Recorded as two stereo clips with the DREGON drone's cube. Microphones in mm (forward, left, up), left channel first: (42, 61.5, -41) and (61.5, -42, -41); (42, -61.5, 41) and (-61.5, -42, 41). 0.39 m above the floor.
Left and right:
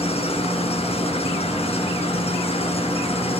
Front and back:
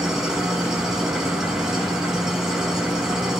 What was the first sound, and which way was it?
An engine running, 85° left.